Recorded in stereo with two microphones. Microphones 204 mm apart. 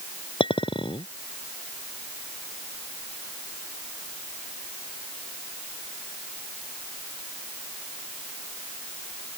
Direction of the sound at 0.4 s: 25° left (ahead or behind).